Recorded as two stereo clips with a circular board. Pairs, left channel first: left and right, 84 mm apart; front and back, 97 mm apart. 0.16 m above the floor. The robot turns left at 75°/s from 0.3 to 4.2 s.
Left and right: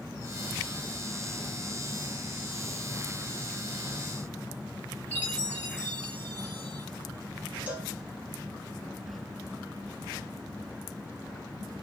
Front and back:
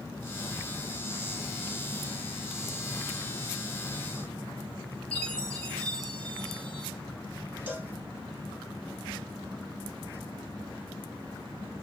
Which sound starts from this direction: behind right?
A cowbell, at 7.7 s.